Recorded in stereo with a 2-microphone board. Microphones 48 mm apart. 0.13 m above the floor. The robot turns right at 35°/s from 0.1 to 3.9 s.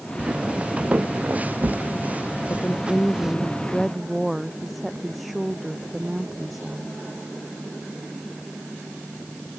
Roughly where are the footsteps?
Right.